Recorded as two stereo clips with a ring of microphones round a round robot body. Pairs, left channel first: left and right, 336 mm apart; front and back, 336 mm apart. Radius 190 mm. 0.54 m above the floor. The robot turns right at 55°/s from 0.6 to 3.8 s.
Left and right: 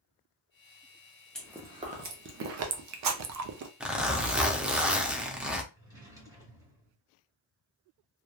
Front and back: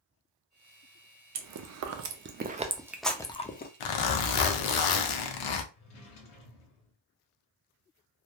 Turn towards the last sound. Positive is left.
turn(degrees=-10)